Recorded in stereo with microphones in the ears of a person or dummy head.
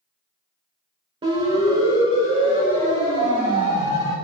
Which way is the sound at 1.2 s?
30° right (ahead or behind).